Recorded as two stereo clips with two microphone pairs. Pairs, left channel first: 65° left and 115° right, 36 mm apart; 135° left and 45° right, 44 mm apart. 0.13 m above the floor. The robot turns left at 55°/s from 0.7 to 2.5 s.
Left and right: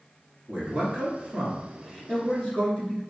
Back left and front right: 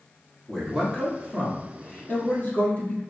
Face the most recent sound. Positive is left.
turn(degrees=110)